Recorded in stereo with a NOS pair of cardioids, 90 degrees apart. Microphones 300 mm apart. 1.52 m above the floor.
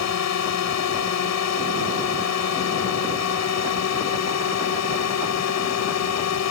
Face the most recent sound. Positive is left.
turn(degrees=65)